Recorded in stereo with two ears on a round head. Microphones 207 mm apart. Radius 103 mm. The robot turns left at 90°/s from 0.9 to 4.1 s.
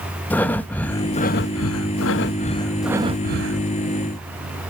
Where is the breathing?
175° left, 0.6 m; by 3.7 s 80° right, 0.6 m.